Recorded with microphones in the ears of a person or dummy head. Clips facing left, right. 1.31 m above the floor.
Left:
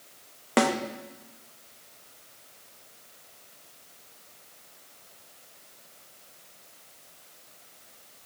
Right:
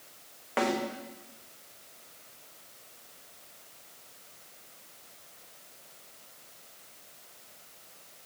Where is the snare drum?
65° left (ahead or behind), 1.1 m.